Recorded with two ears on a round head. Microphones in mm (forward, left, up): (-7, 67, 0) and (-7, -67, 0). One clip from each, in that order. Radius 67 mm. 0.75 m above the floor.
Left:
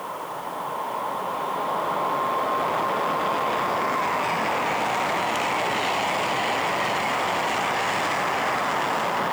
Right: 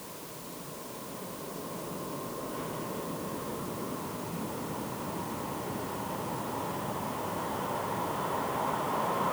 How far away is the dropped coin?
I don't hear a dropped coin.